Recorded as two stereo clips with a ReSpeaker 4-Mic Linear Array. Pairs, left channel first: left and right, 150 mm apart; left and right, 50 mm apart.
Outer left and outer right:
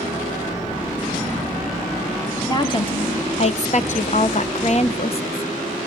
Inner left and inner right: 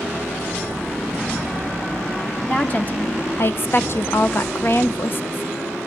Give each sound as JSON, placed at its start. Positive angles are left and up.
{"t": 2.5, "sound": "a woman speaking", "side_deg": 30, "distance_m": 1.3}